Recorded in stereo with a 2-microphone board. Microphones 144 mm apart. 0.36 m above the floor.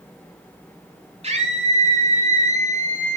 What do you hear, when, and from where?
1.2 s a scream: 50° right (ahead or behind), 3 m; by 3.2 s 60° right (ahead or behind), 2 m